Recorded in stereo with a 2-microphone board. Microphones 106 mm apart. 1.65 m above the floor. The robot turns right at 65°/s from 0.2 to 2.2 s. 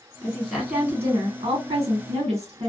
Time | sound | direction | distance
0.2 | a woman speaking | 165° left | 1.5 m